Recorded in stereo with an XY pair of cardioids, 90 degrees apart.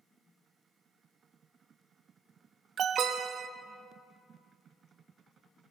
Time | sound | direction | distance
2.8 | an alarm | 65° right | 0.8 m